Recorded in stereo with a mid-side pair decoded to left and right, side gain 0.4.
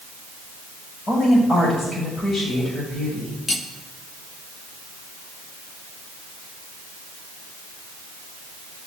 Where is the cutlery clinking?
30° left, 1.6 m.